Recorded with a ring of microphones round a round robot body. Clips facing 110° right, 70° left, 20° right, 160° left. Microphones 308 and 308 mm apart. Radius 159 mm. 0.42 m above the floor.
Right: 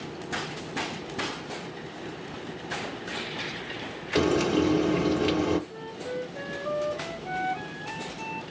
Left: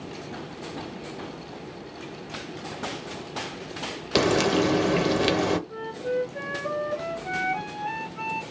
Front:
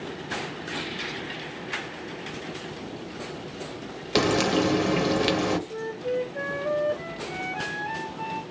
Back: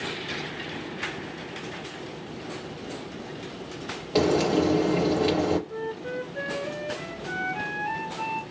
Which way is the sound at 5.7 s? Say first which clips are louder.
Left 6 dB, front 3 dB; 95° left.